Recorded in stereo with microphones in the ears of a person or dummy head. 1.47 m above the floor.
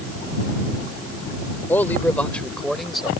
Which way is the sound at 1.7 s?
15° left (ahead or behind).